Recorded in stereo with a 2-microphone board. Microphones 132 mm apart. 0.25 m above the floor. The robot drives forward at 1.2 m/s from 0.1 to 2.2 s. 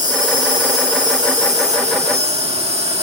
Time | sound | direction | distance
0.0 | an insect | 75° right (ahead or behind) | 2.5 m